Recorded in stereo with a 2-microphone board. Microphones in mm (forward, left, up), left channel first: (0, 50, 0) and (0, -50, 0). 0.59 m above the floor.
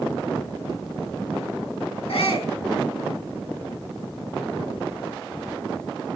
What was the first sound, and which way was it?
A shout, 80° left.